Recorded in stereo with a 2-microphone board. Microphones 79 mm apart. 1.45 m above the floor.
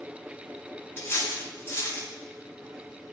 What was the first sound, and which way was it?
Cutlery clinking, 30° left (ahead or behind).